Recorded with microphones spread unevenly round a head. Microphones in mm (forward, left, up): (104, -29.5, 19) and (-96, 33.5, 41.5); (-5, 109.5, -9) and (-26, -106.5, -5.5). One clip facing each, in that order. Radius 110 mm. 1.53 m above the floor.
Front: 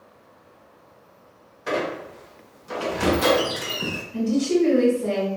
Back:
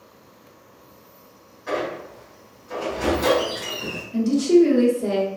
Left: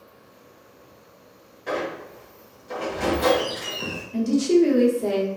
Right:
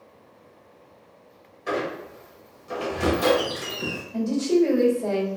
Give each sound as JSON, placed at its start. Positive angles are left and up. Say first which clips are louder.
{"t": 1.7, "sound": "a squeak", "louder": "front 1 dB, right 1 dB", "azimuth_deg": -20, "distance_m": 0.9}
{"t": 4.1, "sound": "a woman speaking", "louder": "back 5 dB, left 3 dB", "azimuth_deg": 130, "distance_m": 1.1}